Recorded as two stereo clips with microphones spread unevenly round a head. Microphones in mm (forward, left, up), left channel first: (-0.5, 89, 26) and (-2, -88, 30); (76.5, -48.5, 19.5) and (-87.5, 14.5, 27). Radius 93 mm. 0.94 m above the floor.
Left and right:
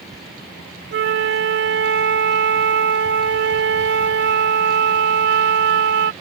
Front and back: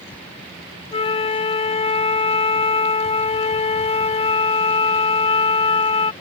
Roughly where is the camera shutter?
No camera shutter in this recording.